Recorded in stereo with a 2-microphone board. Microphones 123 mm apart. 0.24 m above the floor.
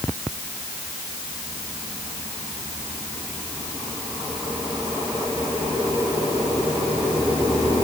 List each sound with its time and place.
Only background noise.